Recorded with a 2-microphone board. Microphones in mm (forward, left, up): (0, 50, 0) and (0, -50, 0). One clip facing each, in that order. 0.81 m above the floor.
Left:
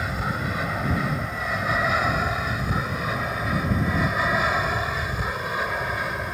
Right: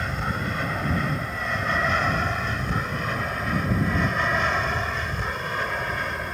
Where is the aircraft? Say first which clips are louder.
Left 1 dB; 5° left (ahead or behind).